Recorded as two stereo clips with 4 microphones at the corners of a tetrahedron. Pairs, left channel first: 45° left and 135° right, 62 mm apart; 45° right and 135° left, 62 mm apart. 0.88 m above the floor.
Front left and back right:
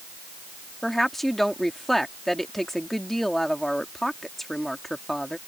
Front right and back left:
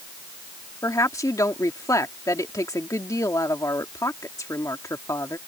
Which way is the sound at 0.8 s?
40° right.